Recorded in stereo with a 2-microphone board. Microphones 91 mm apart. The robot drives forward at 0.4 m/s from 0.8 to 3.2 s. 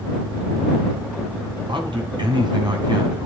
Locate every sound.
1.7 s a man speaking: 60° right (ahead or behind), 2.5 m; by 3.3 s 55° right (ahead or behind), 3 m